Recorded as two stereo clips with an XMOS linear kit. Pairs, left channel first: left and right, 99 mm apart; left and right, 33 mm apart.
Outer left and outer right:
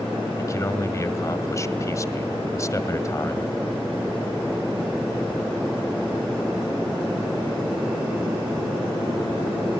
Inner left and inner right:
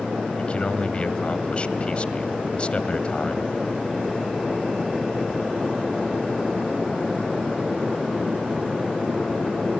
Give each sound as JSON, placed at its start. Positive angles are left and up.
{"t": 0.4, "sound": "a man speaking", "side_deg": 30, "distance_m": 1.6}